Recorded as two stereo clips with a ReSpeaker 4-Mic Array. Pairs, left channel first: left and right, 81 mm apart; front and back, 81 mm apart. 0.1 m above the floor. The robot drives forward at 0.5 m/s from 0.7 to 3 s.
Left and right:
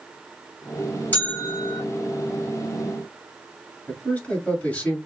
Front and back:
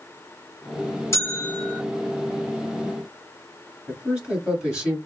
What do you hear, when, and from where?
1.1 s a bell: 35° left, 1.9 m; by 1.8 s 45° left, 1.7 m
3.9 s a man speaking: 125° left, 1.8 m